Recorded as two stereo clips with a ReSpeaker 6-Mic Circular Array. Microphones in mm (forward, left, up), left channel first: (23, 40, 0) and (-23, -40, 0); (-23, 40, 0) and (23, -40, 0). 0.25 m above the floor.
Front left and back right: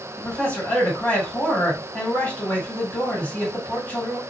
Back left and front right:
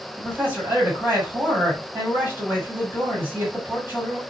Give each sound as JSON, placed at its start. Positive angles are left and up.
{"t": 0.2, "sound": "a man speaking", "azimuth_deg": -5, "distance_m": 1.5}